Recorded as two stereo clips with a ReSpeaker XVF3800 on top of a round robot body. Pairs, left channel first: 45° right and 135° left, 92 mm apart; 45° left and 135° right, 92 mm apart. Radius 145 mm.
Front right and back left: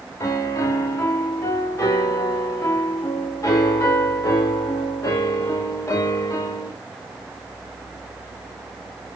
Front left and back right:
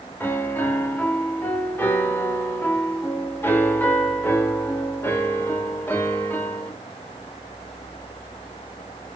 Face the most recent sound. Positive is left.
turn(degrees=-10)